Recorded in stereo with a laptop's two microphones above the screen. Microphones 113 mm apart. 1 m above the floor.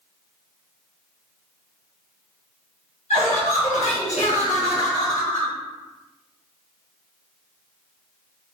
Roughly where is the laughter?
Left.